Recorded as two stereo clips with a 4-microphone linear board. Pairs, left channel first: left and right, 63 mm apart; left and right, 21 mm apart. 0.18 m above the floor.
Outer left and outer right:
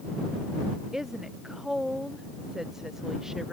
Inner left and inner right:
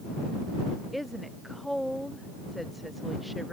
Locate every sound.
0.9 s a woman speaking: 5° right (ahead or behind)